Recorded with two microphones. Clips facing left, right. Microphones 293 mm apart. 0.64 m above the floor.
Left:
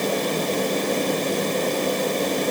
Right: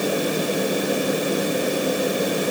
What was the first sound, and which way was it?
Only background noise.